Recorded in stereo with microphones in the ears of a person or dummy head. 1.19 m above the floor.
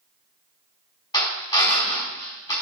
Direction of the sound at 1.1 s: 20° left (ahead or behind).